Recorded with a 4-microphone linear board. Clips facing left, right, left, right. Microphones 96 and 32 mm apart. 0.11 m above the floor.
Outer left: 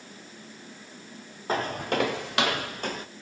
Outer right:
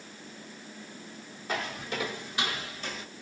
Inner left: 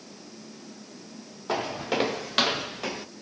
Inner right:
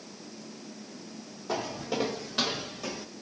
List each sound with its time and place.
1.5 s footsteps: 35° left (ahead or behind), 0.7 m; by 3.0 s 45° left (ahead or behind), 0.9 m